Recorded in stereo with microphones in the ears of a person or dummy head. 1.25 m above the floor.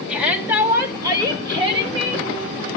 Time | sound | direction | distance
0.1 | a shout | 5° right (ahead or behind) | 1.9 m